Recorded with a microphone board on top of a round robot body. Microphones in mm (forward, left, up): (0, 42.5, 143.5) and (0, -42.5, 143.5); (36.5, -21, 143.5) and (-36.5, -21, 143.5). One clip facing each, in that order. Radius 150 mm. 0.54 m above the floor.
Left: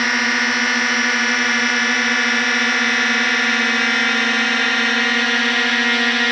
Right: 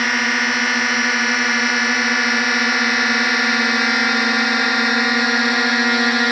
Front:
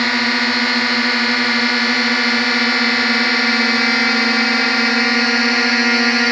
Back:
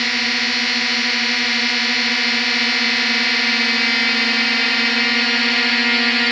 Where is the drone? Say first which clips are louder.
Even, front 5 dB; straight ahead; by 6.3 s 40° right.